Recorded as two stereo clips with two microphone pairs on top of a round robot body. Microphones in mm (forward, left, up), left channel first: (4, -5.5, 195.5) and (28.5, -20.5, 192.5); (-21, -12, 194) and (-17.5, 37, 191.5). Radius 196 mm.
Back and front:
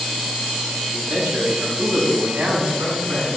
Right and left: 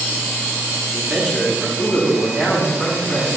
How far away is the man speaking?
About 5.5 m.